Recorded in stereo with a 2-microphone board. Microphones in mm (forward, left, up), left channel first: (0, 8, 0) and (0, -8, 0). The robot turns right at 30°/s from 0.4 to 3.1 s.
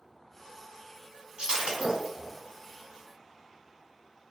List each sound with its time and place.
1.4 s breaking glass: 70° right (ahead or behind), 1.1 m; by 2.3 s 45° right (ahead or behind), 1.1 m